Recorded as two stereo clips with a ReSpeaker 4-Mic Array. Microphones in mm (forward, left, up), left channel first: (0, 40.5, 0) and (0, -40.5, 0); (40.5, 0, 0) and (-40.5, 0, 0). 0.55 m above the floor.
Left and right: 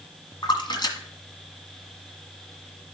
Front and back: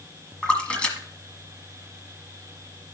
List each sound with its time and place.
0.4 s a splash: 75° left, 1.5 m